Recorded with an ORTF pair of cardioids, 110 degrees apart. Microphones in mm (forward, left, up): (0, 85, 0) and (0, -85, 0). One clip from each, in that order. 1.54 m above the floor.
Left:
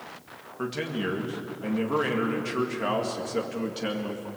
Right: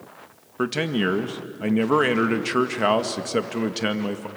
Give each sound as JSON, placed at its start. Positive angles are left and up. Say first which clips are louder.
{"t": 0.6, "sound": "a man speaking", "louder": "right 7 dB", "azimuth_deg": -50, "distance_m": 1.9}